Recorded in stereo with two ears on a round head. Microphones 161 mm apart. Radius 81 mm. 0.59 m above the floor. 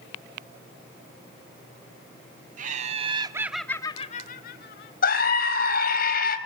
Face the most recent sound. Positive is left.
turn(degrees=55)  # may be behind; listen again after turning